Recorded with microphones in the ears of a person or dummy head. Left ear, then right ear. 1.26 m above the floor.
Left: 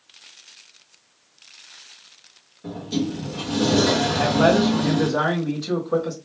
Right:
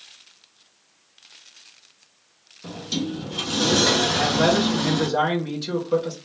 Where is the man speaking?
35° right (ahead or behind), 1.4 m.